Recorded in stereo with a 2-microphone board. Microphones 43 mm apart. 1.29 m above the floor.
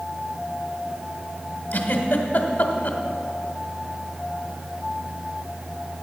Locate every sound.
1.7 s a giggle: 45° left (ahead or behind), 1.4 m